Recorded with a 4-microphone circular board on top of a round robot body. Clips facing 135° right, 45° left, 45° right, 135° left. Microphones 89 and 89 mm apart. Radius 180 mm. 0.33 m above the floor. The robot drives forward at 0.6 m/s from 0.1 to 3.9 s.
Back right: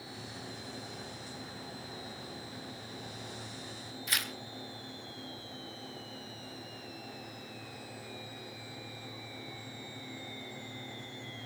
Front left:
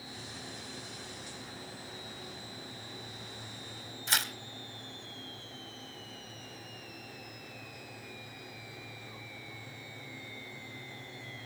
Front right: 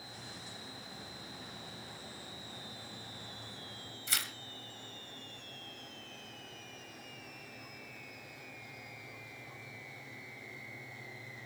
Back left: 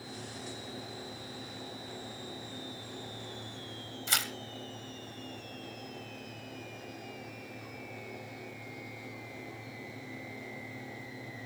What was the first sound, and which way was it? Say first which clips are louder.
Tearing paper: front left 4 dB, back left 6 dB; 105° left.